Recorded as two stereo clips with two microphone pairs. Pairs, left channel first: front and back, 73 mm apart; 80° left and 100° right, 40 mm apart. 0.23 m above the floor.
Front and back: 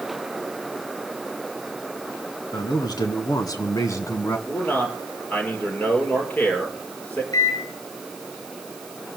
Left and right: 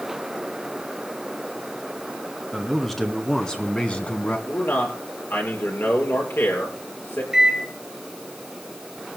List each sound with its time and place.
2.5 s a man speaking: straight ahead, 3 m; by 4.4 s 50° left, 1.8 m
4.5 s a man speaking: 70° left, 5.5 m
7.3 s a microwave: 20° right, 2.5 m